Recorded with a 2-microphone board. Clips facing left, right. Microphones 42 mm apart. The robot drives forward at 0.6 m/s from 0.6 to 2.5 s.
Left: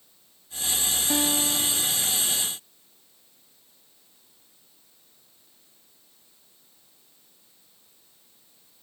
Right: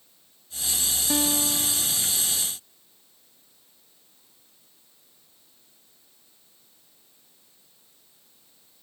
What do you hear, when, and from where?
1.1 s a guitar: centre (ahead or behind)